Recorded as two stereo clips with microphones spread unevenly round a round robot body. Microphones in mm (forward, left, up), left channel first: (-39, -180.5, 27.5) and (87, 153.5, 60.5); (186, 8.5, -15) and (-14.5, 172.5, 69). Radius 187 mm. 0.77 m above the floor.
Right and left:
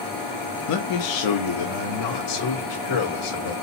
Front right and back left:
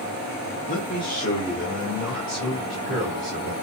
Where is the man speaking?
85° right, 0.7 m; by 3.5 s 130° right, 3 m.